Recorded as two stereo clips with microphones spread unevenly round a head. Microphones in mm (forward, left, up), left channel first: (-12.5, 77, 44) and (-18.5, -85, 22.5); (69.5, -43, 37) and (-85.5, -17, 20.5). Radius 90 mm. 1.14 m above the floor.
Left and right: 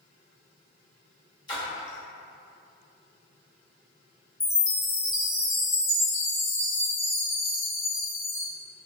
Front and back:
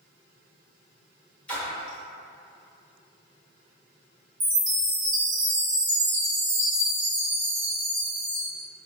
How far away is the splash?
About 0.9 m.